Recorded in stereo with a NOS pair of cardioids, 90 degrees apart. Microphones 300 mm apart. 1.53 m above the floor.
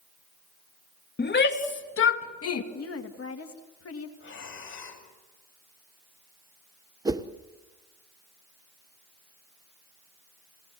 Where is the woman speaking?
45° left, 2.5 m.